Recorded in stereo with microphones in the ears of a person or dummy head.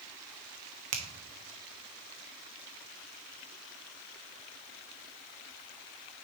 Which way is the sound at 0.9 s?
35° right (ahead or behind).